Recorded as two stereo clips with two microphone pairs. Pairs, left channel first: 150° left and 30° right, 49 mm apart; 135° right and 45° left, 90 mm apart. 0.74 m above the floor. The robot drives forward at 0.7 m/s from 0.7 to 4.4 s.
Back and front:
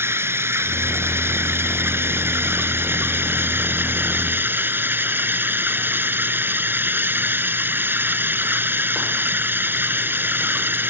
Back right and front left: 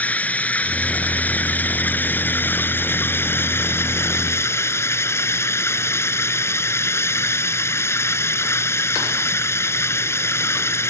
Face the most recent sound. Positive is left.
turn(degrees=-75)